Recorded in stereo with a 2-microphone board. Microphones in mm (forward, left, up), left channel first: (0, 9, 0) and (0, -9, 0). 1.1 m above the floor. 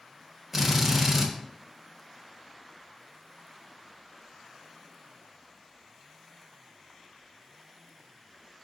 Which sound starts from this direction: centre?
A drill, at 0.5 s.